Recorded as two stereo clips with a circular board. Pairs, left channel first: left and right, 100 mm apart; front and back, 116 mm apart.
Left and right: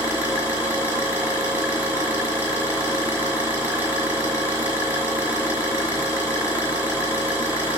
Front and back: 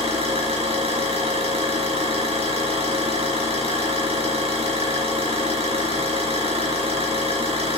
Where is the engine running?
160° right, 3.5 m.